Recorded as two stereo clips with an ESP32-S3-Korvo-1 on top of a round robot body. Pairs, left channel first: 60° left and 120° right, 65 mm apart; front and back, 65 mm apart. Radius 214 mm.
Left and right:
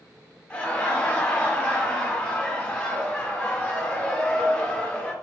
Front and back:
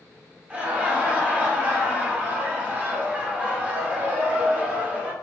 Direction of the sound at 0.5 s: 125° left.